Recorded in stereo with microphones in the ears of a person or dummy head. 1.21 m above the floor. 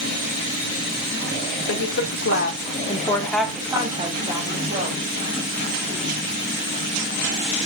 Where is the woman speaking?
70° left (ahead or behind), 2 m; by 5.1 s 50° right (ahead or behind), 3 m.